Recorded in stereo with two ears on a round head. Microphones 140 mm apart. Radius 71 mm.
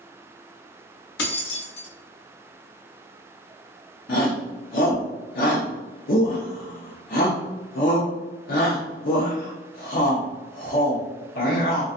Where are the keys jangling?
85° left, 0.6 m.